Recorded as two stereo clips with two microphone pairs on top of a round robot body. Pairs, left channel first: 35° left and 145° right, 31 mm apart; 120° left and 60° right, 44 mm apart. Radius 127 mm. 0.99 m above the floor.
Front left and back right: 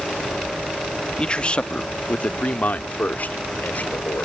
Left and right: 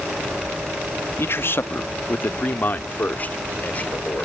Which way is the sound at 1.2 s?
95° left.